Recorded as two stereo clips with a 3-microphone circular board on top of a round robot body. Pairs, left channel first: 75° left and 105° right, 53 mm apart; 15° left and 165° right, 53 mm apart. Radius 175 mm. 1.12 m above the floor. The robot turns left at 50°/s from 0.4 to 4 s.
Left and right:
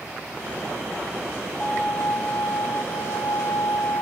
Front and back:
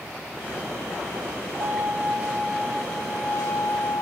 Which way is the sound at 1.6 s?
145° left.